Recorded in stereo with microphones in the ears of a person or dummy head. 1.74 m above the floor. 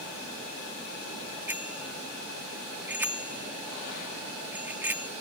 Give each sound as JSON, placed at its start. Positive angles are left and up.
{"t": 1.5, "sound": "a bicycle bell", "side_deg": -10}